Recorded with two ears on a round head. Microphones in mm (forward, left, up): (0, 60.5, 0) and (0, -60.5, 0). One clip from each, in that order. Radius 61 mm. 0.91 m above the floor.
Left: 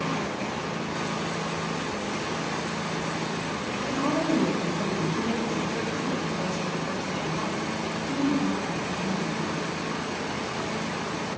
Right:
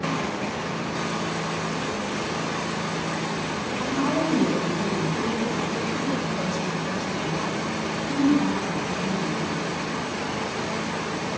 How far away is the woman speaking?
About 3.5 m.